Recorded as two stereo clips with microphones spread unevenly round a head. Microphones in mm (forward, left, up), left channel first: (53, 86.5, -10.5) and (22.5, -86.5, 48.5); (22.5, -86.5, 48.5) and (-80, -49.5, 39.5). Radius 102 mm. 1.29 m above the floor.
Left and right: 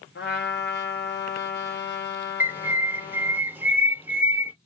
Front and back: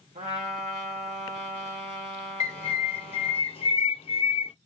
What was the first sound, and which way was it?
A trumpet, 125° left.